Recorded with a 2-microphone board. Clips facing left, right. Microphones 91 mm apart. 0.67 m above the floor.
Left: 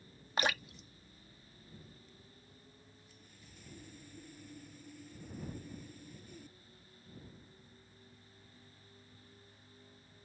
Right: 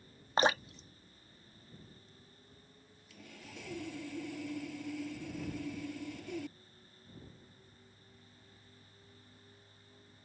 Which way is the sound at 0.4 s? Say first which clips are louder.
Right 6 dB; 30° right (ahead or behind).